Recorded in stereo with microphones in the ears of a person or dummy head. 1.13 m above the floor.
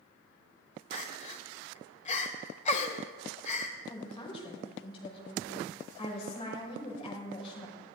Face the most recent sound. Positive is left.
turn(degrees=35)  # may be behind; listen again after turning